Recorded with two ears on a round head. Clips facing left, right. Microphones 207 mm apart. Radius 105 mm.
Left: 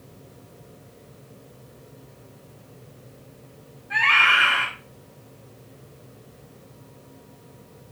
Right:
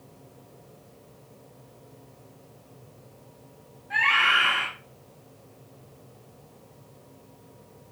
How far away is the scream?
About 2 m.